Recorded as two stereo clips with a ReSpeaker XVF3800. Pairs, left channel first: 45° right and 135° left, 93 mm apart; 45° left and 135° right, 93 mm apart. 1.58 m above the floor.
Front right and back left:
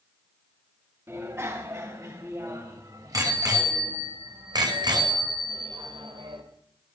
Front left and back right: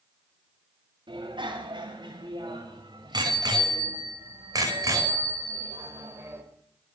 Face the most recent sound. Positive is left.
turn(degrees=160)